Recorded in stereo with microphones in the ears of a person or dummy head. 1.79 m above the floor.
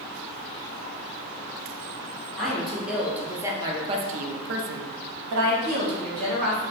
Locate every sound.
2.4 s a woman speaking: 5° left (ahead or behind), 1.5 m; by 6.6 s 45° right (ahead or behind), 1.5 m